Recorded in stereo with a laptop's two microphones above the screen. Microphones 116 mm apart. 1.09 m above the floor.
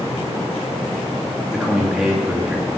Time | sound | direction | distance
1.5 | a man speaking | 5° right (ahead or behind) | 2 m